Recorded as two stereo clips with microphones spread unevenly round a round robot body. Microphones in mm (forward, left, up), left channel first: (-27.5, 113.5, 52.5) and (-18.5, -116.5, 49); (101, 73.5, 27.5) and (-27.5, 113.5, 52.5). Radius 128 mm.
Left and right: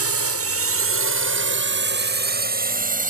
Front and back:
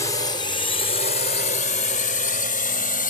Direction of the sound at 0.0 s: 85° right.